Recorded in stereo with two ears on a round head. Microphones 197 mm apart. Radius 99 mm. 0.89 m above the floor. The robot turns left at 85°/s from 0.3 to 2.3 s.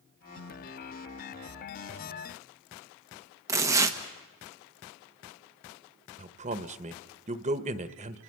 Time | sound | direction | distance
3.5 | tearing paper | 15° right (ahead or behind) | 1.3 m
6.2 | a man speaking | 30° right (ahead or behind) | 1.0 m